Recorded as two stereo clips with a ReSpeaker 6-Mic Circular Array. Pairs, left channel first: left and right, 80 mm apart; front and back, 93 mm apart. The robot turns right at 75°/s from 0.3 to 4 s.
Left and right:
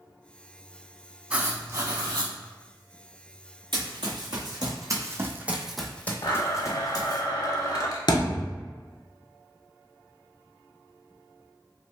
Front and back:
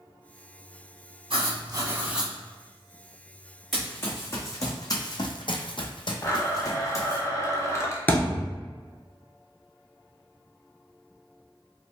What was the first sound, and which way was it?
Writing, 165° right.